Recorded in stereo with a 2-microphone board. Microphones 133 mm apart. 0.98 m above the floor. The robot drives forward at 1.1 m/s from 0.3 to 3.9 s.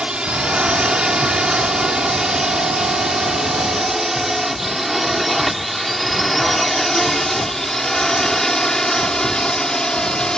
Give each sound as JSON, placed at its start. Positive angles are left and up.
{"t": 0.0, "sound": "a drone", "side_deg": -5}